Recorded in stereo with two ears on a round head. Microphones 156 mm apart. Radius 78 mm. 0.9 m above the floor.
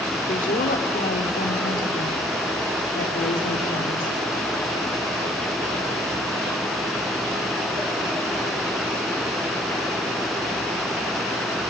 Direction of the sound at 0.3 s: 50° left (ahead or behind).